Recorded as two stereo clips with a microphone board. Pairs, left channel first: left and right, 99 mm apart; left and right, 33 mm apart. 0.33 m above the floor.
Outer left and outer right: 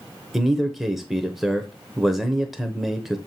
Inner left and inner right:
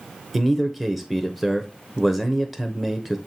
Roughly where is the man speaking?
Centre.